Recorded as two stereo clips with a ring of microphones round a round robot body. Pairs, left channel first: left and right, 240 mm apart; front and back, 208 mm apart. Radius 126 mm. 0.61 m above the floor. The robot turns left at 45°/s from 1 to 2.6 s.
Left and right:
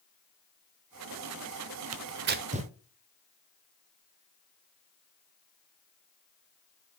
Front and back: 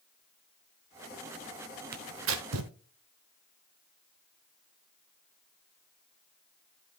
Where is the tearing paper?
125° right, 0.8 m; by 2.7 s 155° right, 0.8 m.